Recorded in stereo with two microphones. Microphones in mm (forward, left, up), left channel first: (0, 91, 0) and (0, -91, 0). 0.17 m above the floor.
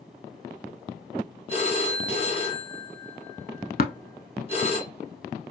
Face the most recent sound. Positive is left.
turn(degrees=55)  # may be behind; listen again after turning